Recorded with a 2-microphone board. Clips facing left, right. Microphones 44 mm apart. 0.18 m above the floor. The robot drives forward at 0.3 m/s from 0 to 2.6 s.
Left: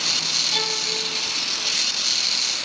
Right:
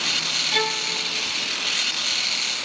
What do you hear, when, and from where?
0.5 s a violin: 50° right (ahead or behind), 2.5 m